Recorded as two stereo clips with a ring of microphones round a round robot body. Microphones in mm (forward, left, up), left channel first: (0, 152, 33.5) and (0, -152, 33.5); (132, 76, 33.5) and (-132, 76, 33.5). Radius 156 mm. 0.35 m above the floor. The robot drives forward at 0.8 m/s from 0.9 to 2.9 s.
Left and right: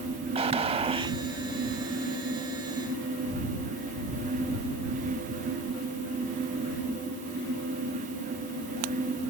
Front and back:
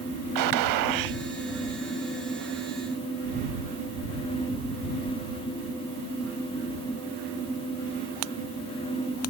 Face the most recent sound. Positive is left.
turn(degrees=-175)